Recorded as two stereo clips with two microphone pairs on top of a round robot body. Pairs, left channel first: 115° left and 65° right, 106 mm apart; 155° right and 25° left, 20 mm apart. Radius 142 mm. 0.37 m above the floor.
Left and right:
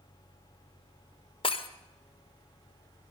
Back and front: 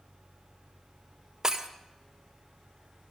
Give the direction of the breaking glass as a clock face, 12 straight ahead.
9 o'clock.